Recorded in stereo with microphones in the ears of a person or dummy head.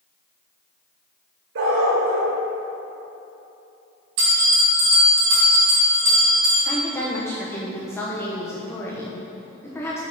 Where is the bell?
60° right (ahead or behind), 2.5 m.